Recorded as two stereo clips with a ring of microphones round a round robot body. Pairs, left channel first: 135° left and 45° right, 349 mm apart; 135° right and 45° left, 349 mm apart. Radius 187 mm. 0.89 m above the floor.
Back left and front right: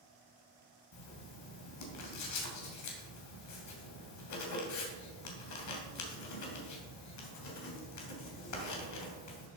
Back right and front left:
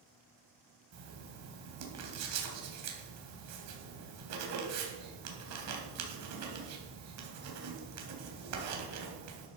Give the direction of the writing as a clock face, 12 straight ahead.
9 o'clock.